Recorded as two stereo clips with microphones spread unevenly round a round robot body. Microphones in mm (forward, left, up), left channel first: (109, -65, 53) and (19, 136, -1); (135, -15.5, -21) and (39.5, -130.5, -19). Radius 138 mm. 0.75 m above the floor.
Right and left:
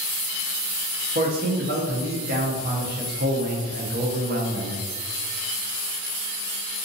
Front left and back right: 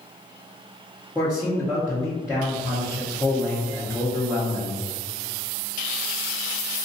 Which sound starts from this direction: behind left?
A man speaking, at 1.1 s.